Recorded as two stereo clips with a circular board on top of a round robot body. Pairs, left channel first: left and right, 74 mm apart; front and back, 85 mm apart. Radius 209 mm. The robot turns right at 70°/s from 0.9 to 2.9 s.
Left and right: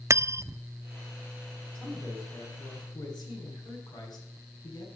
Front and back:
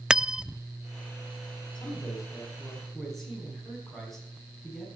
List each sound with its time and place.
0.1 s cutlery clinking: 100° right, 0.5 m
1.8 s a man speaking: 5° left, 5.5 m; by 4.8 s 90° left, 5.5 m